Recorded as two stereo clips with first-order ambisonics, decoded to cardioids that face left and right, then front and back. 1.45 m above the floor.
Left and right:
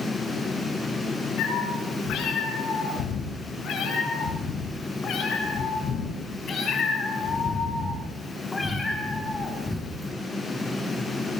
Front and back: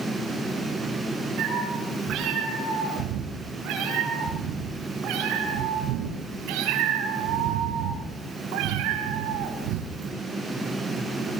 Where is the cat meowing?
135° left, 9.5 m; by 10.1 s straight behind, 5.5 m.